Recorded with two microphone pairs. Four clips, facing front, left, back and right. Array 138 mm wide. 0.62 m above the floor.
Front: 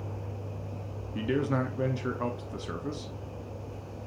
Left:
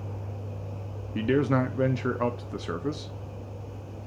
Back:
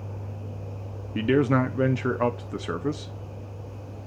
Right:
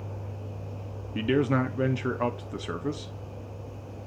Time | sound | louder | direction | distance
1.1 | a man speaking | left 1 dB, back 7 dB | 170° left | 0.7 m